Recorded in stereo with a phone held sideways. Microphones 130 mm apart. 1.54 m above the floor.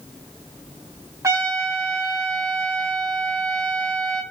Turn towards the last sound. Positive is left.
turn(degrees=-25)  # may be behind; listen again after turning